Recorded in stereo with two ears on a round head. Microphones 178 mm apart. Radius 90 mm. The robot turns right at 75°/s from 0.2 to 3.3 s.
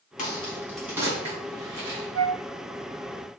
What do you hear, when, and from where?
0.2 s a crack: 40° left (ahead or behind), 3.5 m; by 2.0 s 70° right (ahead or behind), 3.5 m
2.1 s a flute: 70° right (ahead or behind), 0.5 m; by 2.4 s 60° right (ahead or behind), 0.5 m